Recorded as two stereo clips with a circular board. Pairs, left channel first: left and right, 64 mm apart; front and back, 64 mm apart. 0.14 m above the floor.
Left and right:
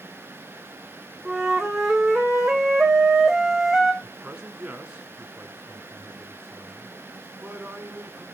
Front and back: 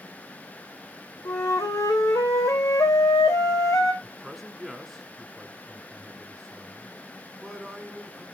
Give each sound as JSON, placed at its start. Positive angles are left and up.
{"t": 1.2, "sound": "a flute", "azimuth_deg": -5, "distance_m": 1.7}
{"t": 4.0, "sound": "a man speaking", "azimuth_deg": -90, "distance_m": 1.0}